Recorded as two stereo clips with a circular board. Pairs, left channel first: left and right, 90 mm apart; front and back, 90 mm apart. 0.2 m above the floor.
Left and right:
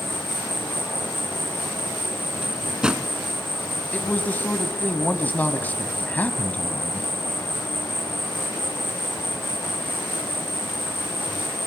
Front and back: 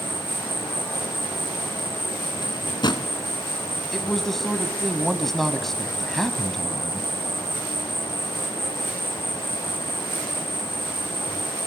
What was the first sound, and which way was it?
An insect, 25° left.